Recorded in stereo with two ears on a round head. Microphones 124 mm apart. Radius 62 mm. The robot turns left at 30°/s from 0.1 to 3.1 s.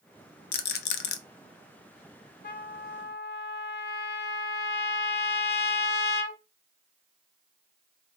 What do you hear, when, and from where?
0.5 s a rattle: 75° left (ahead or behind), 0.5 m; by 1.2 s 80° left, 0.5 m
2.4 s a trumpet: 70° left (ahead or behind), 0.7 m; by 6.4 s 85° left, 0.7 m